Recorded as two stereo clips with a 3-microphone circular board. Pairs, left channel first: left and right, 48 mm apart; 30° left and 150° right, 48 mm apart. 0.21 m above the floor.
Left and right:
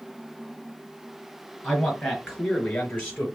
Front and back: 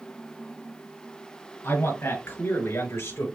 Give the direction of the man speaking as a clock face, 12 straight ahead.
11 o'clock.